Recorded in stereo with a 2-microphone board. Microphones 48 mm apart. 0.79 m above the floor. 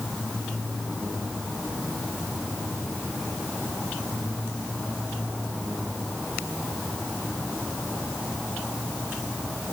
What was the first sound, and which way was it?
Only background noise.